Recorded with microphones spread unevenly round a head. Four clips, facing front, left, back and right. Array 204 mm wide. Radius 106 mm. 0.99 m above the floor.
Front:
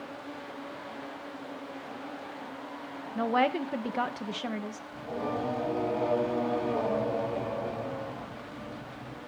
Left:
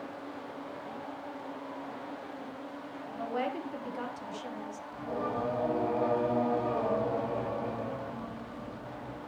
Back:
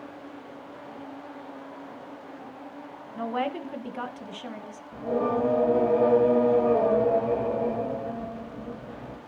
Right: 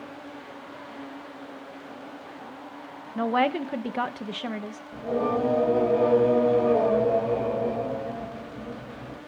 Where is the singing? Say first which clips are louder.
Right 9 dB, back 8 dB; 135° right, 3.5 m.